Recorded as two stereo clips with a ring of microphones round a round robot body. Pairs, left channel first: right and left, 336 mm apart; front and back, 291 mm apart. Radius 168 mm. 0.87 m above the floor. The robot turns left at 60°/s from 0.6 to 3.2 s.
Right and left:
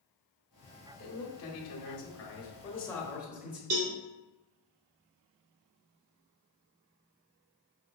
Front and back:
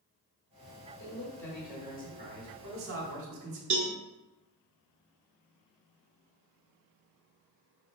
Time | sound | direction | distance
1.0 | a man speaking | 55° right | 1.2 m
3.7 | a cowbell | 130° left | 0.9 m